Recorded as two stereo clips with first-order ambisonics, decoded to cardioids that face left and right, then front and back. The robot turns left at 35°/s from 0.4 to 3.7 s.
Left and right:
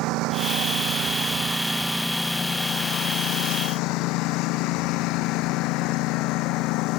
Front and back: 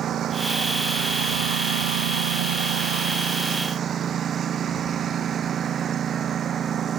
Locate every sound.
0.0 s a lawn mower: 125° right; by 7.0 s 120° left